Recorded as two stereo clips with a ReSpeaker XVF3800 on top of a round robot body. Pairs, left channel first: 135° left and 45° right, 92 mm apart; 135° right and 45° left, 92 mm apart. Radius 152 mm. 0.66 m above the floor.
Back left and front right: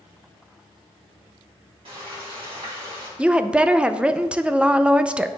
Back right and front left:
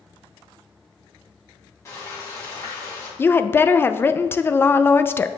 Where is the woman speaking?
110° right, 0.5 m.